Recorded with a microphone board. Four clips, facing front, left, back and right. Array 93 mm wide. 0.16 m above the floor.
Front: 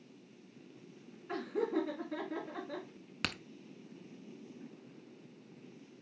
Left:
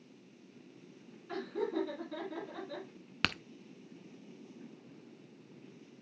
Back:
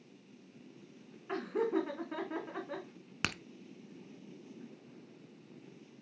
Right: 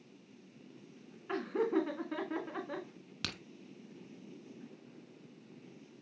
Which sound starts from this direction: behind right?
Laughter, at 1.3 s.